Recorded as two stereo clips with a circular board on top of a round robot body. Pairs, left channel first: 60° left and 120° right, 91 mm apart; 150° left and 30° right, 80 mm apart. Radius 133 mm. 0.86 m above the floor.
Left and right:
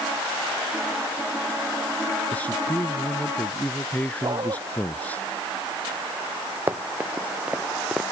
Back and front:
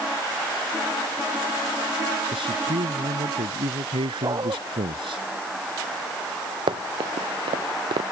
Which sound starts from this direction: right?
A dog barking, at 4.2 s.